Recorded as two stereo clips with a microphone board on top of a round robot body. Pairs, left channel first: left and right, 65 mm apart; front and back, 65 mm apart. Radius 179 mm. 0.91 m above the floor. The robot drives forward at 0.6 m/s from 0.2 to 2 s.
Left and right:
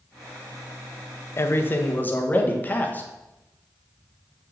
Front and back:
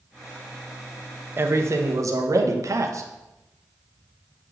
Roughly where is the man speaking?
Behind left.